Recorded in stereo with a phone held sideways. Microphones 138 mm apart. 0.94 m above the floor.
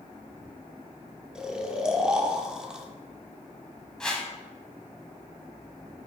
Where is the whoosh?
5° left (ahead or behind), 1.2 m.